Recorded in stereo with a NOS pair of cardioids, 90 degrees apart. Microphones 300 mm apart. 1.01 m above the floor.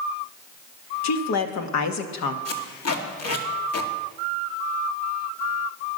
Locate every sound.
1.0 s a woman speaking: 65° left, 1.5 m
2.5 s tape being pulled: 55° left, 2 m